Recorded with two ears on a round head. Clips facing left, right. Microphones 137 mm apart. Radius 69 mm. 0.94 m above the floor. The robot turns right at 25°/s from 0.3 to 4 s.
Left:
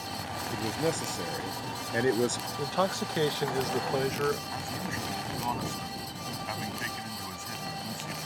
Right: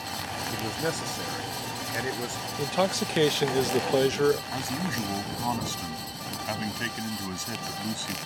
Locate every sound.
0.5 s a man speaking: straight ahead; by 2.5 s 50° left
2.6 s a man speaking: 160° right; by 4.4 s 125° right
4.5 s a man speaking: 45° right (ahead or behind)